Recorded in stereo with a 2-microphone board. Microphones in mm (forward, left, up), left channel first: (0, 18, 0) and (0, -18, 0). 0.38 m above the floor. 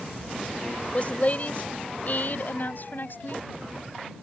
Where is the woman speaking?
40° left (ahead or behind); by 3.5 s 60° left (ahead or behind).